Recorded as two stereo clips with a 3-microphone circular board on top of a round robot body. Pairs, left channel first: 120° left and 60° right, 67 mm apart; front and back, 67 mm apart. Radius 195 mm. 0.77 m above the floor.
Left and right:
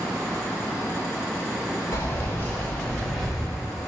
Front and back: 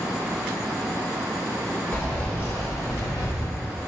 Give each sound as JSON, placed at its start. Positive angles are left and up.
{"t": 1.9, "sound": "keys jangling", "azimuth_deg": 75, "distance_m": 1.0}